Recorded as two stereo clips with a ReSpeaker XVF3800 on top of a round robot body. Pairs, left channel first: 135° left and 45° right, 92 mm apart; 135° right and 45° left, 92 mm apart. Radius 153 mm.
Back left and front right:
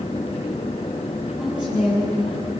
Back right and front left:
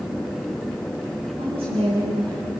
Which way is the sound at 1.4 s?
35° left.